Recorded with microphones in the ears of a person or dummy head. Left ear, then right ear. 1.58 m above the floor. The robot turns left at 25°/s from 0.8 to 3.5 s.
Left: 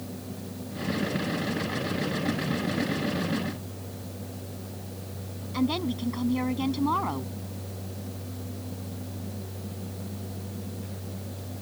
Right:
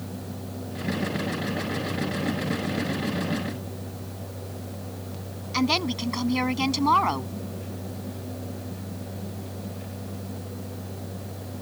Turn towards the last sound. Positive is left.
turn(degrees=-50)  # may be behind; listen again after turning